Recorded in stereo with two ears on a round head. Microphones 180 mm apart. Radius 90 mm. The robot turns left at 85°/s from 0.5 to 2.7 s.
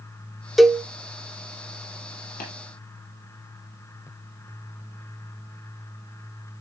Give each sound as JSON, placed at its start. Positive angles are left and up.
{"t": 0.6, "sound": "a cowbell", "side_deg": 0, "distance_m": 0.6}
{"t": 2.4, "sound": "tapping", "side_deg": 45, "distance_m": 7.0}